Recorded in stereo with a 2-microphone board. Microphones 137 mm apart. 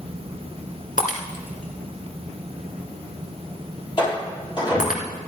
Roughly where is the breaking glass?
Left.